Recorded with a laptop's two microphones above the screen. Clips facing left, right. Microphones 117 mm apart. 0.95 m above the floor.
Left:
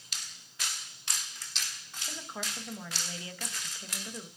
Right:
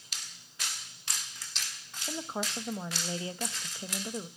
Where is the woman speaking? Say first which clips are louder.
Right 6 dB; 30° right (ahead or behind), 0.7 m.